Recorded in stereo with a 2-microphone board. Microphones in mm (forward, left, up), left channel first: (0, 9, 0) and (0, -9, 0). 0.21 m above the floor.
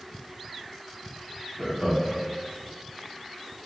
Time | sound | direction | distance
1.6 | laughter | 30° right (ahead or behind) | 1.7 m